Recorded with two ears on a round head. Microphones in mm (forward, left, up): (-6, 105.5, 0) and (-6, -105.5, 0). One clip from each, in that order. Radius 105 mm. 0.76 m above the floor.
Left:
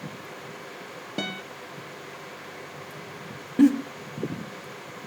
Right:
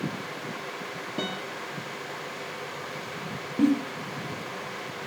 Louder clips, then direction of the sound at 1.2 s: Left 1 dB; 30° left (ahead or behind).